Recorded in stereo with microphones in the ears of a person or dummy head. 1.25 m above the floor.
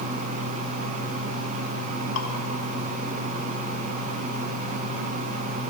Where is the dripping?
65° left (ahead or behind), 0.9 m.